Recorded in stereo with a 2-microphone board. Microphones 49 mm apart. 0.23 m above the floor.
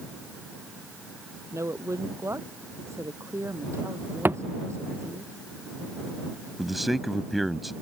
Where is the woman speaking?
75° right (ahead or behind).